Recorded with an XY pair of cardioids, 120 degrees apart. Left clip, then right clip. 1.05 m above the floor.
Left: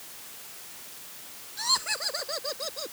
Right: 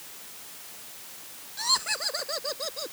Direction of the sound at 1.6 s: 5° right.